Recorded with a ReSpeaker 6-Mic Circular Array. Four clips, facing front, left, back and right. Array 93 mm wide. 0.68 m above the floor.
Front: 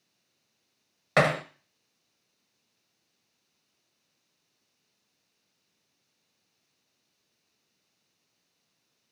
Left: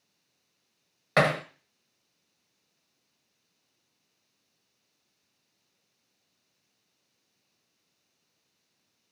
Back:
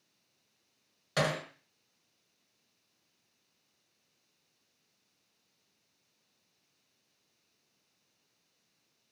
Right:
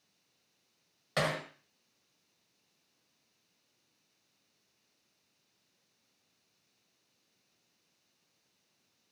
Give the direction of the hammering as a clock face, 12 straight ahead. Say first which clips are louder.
Left 9 dB, front 8 dB; 11 o'clock.